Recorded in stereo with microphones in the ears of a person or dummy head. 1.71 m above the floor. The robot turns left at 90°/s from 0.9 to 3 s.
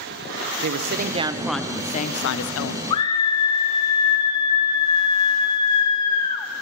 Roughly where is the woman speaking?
Behind right.